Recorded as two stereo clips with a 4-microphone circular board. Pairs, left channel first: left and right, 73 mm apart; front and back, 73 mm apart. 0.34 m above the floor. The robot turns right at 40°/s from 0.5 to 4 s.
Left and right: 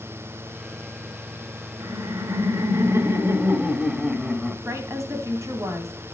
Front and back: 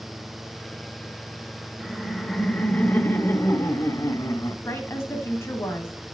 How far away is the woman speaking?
About 2 m.